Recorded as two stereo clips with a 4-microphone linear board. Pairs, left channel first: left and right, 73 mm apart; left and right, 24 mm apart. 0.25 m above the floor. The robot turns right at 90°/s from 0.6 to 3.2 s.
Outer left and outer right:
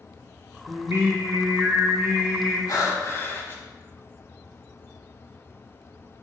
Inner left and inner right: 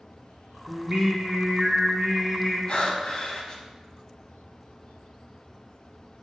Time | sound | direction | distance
0.7 | singing | 165° right | 1.4 m
2.7 | breathing | 90° left | 0.7 m